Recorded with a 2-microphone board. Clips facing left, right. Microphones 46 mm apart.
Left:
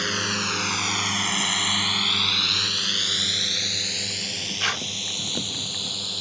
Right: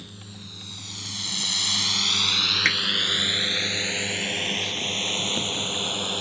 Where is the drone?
80° left; by 6.2 s 35° right (ahead or behind).